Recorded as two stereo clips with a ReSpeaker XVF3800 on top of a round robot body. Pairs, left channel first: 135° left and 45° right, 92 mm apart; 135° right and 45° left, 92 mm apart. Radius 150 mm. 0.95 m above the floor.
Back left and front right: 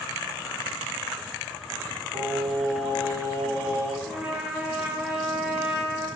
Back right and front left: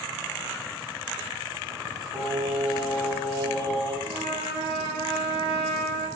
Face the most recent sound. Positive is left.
turn(degrees=25)